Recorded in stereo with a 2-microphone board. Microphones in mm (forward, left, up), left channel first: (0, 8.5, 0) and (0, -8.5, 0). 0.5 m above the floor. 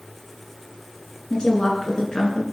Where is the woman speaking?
50° left (ahead or behind), 6 m.